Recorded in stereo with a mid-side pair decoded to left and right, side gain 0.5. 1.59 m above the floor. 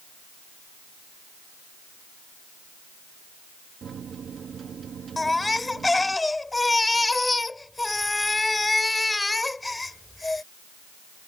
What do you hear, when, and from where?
3.8 s a microwave: 45° right
5.2 s a baby crying: 15° left